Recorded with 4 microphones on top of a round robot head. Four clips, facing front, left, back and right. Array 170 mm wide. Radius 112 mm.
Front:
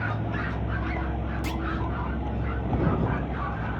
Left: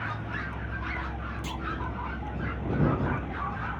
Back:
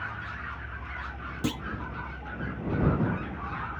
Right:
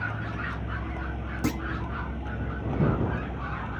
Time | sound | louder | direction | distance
0.0 | a vehicle | right 2 dB, front 7 dB | 5° right | ?
1.4 | a clunk | right 12 dB, back 4 dB | 120° right | ?